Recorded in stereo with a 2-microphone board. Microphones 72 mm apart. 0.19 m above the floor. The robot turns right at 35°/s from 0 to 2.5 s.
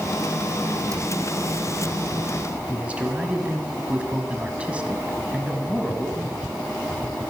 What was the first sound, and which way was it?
A cupboard door, 45° right (ahead or behind).